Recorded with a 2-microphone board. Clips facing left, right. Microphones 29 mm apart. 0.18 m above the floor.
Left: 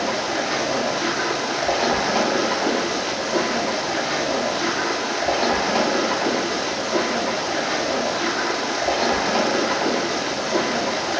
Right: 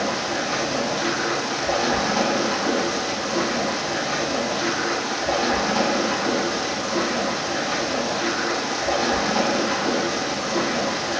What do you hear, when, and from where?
0.0 s running water: 65° left (ahead or behind), 1.8 m